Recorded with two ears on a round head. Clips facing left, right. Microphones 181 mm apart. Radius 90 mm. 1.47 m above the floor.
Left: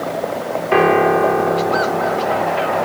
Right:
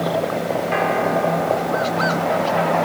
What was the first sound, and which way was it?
A piano, 65° left (ahead or behind).